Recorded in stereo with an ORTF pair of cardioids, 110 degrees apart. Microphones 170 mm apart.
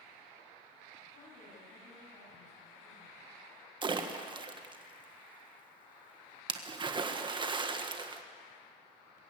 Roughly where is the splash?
Ahead right.